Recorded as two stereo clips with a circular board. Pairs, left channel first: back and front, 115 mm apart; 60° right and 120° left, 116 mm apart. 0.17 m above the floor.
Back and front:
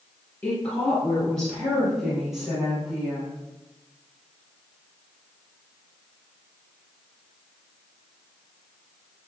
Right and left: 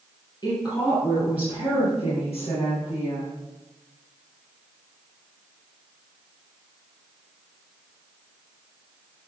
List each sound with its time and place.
0.4 s a woman speaking: 105° right, 4 m; by 3.3 s 80° right, 6 m